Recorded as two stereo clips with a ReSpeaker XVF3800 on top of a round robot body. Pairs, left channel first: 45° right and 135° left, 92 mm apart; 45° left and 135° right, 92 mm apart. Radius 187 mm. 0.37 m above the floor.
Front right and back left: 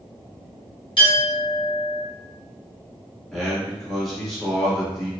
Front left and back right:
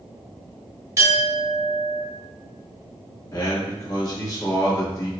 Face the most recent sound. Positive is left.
turn(degrees=40)